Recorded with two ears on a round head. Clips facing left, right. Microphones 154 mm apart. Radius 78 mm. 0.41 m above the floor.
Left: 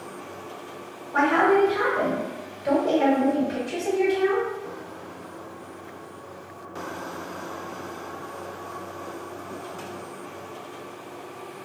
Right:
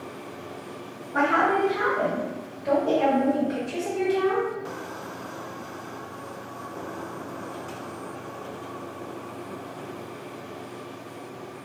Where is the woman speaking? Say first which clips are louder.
Left 3 dB; 55° left (ahead or behind), 1.5 m; by 4.5 s 20° left (ahead or behind), 1.4 m.